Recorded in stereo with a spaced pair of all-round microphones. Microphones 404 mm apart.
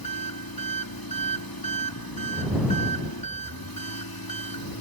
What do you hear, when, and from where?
0.0 s an engine running: 60° left (ahead or behind)